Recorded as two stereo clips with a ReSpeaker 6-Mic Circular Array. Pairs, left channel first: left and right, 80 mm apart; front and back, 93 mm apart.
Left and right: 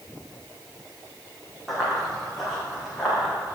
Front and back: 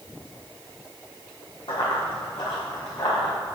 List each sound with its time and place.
1.7 s running footsteps: straight ahead, 3.5 m; by 3.3 s 5° left, 5.5 m